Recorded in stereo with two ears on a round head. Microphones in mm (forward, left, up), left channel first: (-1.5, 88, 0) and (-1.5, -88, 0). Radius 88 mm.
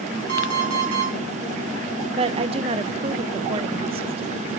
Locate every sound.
0.3 s an alarm clock: 65° right (ahead or behind), 5 m
2.2 s a woman speaking: 30° right (ahead or behind), 0.6 m